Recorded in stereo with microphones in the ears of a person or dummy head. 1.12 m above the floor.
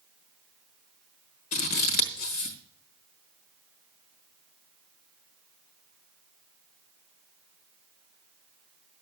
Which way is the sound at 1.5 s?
50° left (ahead or behind).